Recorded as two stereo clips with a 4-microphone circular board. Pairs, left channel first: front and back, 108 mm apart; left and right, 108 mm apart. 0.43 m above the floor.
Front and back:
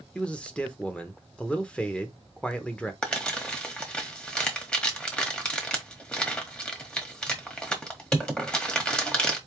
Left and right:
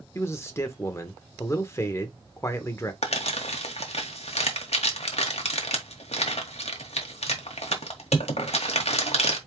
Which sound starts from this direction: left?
Crumpling, at 3.0 s.